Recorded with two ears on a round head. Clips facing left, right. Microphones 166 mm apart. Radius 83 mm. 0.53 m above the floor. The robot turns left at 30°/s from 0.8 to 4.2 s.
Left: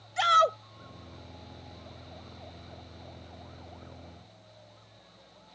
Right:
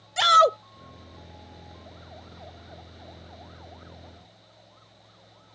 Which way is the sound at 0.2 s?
65° right (ahead or behind).